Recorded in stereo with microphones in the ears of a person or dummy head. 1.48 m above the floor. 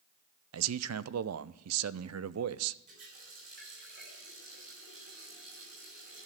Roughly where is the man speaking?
Right.